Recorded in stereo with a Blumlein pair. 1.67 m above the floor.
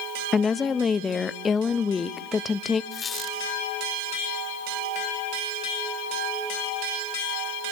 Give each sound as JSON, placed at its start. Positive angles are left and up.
{"t": 0.3, "sound": "a woman speaking", "azimuth_deg": 15, "distance_m": 0.8}
{"t": 2.9, "sound": "a squeak", "azimuth_deg": 20, "distance_m": 4.0}